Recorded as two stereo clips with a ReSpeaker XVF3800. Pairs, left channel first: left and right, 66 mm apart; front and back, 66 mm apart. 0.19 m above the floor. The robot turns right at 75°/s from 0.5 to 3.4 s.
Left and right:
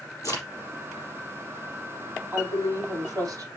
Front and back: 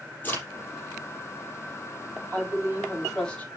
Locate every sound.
0.2 s a crack: 60° left, 5 m
2.3 s a woman speaking: 150° right, 5 m; by 3.5 s 70° right, 5 m